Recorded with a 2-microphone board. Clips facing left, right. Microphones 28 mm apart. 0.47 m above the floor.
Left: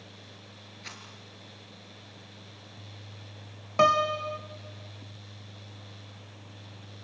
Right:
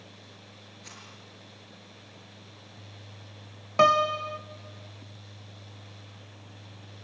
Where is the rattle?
40° left (ahead or behind), 4 m.